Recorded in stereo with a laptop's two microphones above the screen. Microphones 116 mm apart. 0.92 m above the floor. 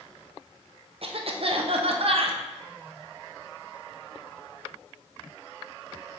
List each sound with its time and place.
1.0 s a cough: 55° right (ahead or behind), 0.5 m